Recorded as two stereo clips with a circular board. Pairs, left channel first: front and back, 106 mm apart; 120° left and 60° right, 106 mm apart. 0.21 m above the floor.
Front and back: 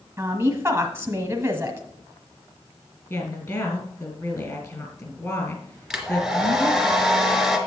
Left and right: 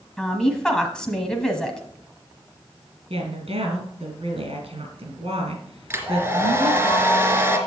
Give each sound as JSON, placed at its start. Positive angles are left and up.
{"t": 0.2, "sound": "a woman speaking", "azimuth_deg": -170, "distance_m": 1.3}
{"t": 3.1, "sound": "a woman speaking", "azimuth_deg": -55, "distance_m": 3.0}
{"t": 5.9, "sound": "a hair dryer", "azimuth_deg": -95, "distance_m": 1.8}